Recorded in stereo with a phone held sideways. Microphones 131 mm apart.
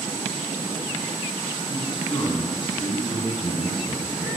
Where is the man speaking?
40° left (ahead or behind), 9 m.